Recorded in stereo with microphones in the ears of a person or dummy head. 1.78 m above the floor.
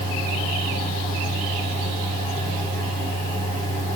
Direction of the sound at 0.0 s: 30° right (ahead or behind).